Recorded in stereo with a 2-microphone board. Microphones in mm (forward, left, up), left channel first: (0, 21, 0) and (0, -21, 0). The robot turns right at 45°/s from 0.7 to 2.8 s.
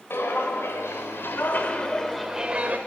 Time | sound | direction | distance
0.1 | footsteps | 60° left (ahead or behind) | 1.6 m